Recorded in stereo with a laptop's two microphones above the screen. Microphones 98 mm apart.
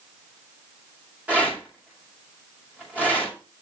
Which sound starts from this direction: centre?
A rattle, at 1.3 s.